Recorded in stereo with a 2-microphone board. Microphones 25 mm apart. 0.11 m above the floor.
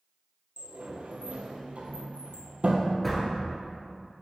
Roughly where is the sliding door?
Right.